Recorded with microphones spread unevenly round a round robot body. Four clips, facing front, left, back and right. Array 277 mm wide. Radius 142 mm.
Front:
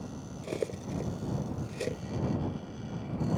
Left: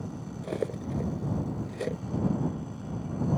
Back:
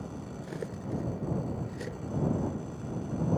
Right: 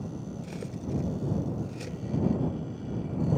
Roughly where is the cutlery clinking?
Ahead left.